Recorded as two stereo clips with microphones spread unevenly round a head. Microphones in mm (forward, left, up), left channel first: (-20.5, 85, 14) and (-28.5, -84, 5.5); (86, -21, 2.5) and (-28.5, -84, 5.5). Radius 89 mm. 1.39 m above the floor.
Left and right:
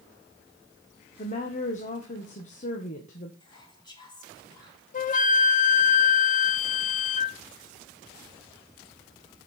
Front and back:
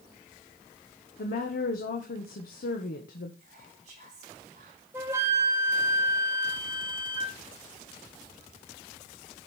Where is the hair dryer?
I don't hear a hair dryer.